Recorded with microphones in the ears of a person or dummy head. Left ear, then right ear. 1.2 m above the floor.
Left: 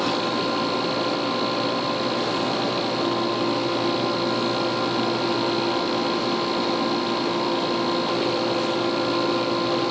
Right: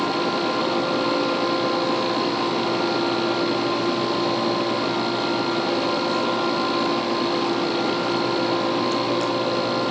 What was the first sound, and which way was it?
Only background noise.